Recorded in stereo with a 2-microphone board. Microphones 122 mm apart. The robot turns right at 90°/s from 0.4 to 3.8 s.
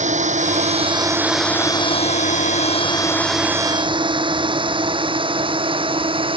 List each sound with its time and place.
0.0 s a drone: 80° right; by 6.4 s 45° right (ahead or behind)